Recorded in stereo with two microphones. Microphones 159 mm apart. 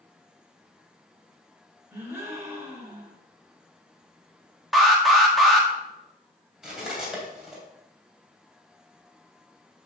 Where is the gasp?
15° right (ahead or behind), 2 m.